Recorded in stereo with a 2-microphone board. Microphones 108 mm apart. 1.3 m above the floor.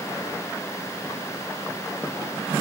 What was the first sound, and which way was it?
Only background noise.